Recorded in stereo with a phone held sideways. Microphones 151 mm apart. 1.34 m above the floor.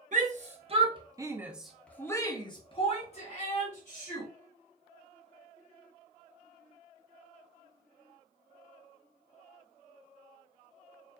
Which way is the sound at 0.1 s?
55° right (ahead or behind).